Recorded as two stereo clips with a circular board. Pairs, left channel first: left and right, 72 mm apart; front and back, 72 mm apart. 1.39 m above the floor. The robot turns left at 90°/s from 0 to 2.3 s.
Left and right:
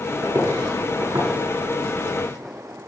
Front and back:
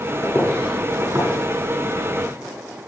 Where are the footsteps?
40° right, 6 m; by 2.3 s 145° left, 5 m.